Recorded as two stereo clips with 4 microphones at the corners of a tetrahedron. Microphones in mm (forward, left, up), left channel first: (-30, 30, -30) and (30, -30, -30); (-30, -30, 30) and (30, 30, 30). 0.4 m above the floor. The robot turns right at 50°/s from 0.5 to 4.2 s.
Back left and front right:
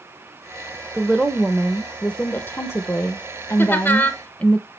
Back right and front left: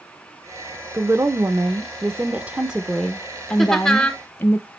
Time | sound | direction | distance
0.9 | a woman speaking | 25° left | 0.8 m
3.6 | laughter | 140° left | 1.2 m